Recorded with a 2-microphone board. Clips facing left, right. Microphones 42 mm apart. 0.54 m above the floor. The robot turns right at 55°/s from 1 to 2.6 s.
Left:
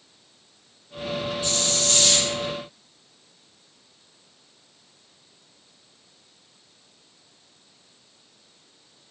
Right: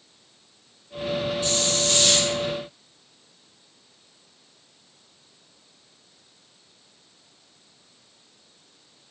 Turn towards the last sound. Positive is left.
turn(degrees=-125)